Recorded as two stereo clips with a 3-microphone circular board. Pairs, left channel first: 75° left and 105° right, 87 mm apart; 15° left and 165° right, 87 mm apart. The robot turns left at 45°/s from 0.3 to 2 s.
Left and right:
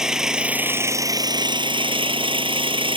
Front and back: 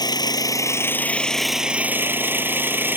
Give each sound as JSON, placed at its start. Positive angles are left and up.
{"t": 0.0, "sound": "an engine running", "azimuth_deg": -20}